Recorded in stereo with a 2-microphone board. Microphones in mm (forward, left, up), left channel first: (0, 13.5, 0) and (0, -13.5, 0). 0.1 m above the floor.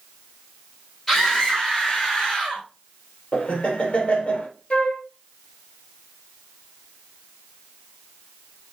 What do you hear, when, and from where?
1.1 s a scream: 10° left (ahead or behind), 3.5 m
3.3 s laughter: 40° left (ahead or behind), 3 m
4.7 s a flute: 45° left (ahead or behind), 1.4 m